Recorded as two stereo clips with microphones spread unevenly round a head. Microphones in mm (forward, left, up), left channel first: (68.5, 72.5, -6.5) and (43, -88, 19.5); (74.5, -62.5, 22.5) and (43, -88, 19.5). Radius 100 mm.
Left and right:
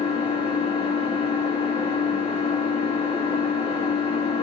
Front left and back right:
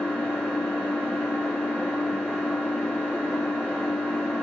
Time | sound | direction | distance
0.0 | an engine running | 75° left | 1.2 m